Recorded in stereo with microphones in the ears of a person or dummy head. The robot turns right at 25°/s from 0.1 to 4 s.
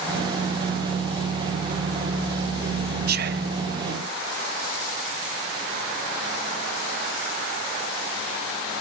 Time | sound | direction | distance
3.1 | whispering | 50° right (ahead or behind) | 0.8 m